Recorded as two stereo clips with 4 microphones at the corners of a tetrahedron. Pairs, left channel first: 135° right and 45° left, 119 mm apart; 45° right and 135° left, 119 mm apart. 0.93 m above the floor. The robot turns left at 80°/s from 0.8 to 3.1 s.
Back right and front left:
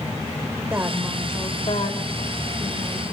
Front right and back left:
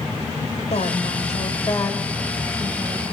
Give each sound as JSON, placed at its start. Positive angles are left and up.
{"t": 0.7, "sound": "a woman speaking", "azimuth_deg": -25, "distance_m": 3.5}